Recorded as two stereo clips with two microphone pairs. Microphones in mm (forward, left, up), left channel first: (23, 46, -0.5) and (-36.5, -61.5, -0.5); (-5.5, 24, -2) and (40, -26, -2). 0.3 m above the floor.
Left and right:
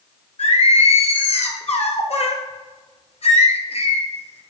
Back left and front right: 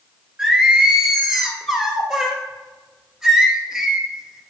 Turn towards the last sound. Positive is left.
turn(degrees=30)